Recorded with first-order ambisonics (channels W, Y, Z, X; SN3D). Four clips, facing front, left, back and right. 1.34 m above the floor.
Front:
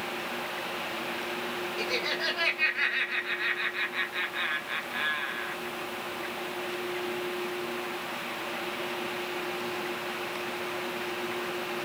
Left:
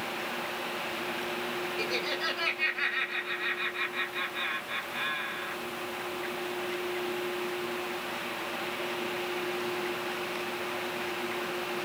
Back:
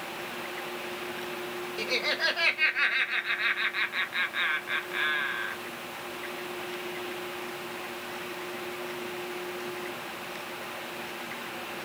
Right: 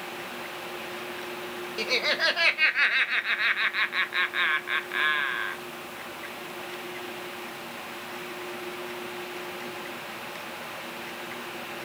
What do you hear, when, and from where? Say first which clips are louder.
1.8 s laughter: right 9 dB, back 3 dB; 100° right, 0.8 m